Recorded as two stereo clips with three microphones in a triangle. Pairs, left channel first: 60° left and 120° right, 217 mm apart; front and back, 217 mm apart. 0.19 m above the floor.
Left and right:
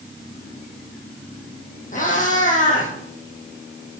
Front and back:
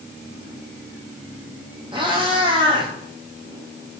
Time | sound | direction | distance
1.9 | a cat meowing | 115° left | 3 m